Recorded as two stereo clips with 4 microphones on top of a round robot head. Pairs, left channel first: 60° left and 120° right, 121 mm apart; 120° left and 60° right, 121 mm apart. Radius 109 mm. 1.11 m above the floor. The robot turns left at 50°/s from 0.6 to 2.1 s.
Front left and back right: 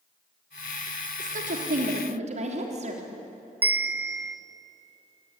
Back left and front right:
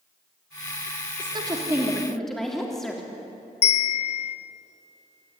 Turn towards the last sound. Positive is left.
turn(degrees=160)